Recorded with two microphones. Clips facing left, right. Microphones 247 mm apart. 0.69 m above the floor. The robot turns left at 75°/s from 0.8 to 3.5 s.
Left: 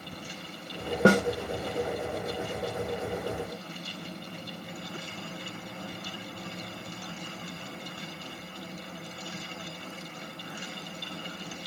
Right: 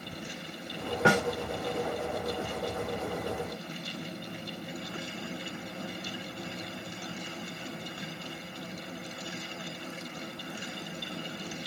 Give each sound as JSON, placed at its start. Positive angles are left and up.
{"t": 1.1, "sound": "a snare drum", "side_deg": 40, "distance_m": 0.5}